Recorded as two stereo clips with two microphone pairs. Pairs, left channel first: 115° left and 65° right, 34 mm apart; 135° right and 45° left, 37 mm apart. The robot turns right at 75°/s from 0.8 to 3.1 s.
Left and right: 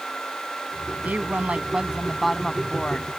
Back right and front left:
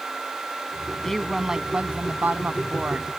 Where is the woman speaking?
60° right; by 3.1 s 95° left.